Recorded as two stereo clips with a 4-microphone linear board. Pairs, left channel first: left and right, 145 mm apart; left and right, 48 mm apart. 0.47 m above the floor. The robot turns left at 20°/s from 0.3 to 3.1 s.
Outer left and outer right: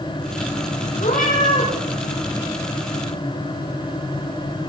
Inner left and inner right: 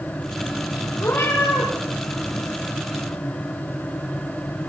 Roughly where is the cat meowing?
Left.